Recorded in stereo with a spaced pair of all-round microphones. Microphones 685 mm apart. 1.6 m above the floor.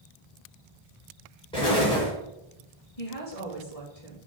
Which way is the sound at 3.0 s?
55° left (ahead or behind).